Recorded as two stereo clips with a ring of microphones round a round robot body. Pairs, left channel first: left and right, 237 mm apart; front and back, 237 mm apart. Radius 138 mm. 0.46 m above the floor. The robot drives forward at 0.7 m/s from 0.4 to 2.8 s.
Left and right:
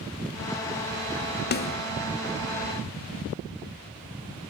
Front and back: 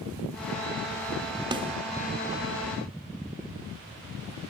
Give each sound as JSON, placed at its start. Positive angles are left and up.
{"t": 1.5, "sound": "a snare drum", "azimuth_deg": 115}